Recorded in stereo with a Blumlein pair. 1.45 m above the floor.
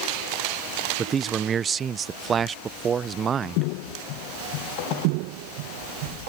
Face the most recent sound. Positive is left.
turn(degrees=-25)